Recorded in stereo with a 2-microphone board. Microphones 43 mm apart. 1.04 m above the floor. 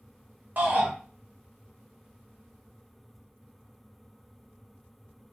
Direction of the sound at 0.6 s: 45° right (ahead or behind).